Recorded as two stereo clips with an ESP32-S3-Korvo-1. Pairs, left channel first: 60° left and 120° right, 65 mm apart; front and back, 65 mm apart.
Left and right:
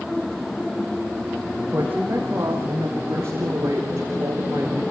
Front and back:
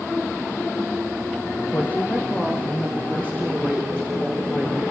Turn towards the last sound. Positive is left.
turn(degrees=-80)